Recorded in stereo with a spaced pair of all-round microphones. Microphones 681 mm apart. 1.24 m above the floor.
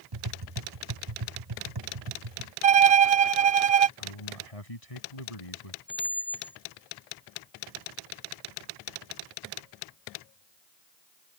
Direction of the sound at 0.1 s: 35° right (ahead or behind).